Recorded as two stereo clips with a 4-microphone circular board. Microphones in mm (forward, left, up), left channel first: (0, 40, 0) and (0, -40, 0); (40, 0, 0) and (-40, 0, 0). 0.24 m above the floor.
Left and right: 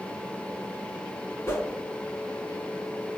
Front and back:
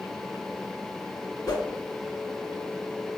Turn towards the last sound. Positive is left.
turn(degrees=35)